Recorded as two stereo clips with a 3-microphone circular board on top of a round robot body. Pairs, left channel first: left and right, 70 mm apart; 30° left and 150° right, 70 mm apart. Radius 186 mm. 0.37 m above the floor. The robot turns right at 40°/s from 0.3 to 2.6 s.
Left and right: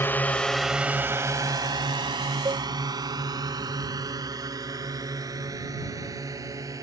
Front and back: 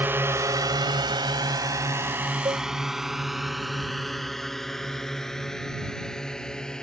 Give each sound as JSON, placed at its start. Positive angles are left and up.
{"t": 0.0, "sound": "a drone", "azimuth_deg": 150}
{"t": 2.5, "sound": "a cowbell", "azimuth_deg": -120}